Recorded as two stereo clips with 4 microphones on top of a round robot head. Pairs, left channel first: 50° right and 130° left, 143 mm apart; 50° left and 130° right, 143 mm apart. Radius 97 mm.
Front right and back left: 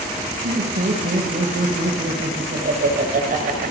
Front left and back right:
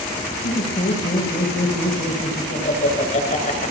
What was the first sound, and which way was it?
Laughter, 90° left.